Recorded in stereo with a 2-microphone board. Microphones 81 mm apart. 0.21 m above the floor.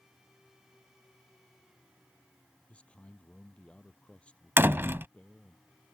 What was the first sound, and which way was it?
A man speaking, 15° left (ahead or behind).